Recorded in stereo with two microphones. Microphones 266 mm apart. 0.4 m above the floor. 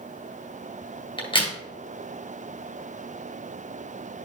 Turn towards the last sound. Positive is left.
turn(degrees=20)  # may be behind; listen again after turning